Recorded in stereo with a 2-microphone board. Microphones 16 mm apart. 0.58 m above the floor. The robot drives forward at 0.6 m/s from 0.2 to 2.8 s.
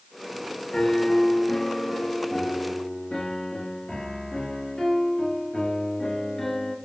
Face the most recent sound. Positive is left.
turn(degrees=65)  # may be behind; listen again after turning